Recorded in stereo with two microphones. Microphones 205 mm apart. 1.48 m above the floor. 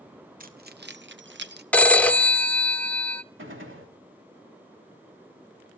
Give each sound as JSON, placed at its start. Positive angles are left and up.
{"t": 0.4, "sound": "keys jangling", "side_deg": -45, "distance_m": 1.0}
{"t": 1.7, "sound": "a phone ringing", "side_deg": 5, "distance_m": 0.7}
{"t": 3.4, "sound": "a gunshot", "side_deg": -75, "distance_m": 3.0}